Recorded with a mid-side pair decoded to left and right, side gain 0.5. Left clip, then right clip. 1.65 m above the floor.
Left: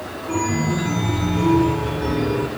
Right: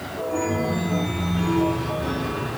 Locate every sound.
0.3 s a chime: 65° left, 5 m